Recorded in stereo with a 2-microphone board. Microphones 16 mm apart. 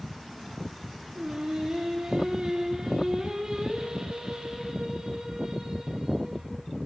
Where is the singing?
70° right (ahead or behind), 0.9 m.